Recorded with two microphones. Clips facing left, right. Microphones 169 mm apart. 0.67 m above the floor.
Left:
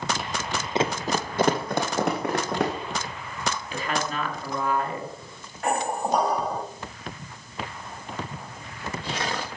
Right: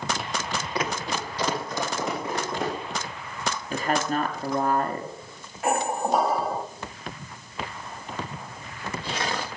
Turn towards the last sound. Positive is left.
turn(degrees=-5)  # may be behind; listen again after turning